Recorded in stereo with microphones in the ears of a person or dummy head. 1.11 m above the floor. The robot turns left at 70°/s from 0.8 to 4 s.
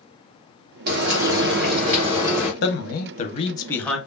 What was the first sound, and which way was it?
Frying, 60° right.